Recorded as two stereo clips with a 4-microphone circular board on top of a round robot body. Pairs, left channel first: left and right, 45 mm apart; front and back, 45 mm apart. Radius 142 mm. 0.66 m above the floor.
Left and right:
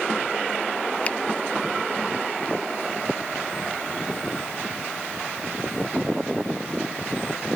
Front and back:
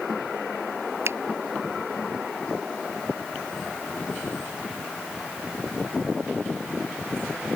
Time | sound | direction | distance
1.1 | a finger snap | 155° left | ?